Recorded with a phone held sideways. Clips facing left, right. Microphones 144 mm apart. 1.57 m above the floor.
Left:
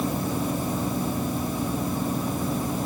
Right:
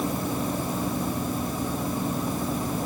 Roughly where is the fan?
Centre.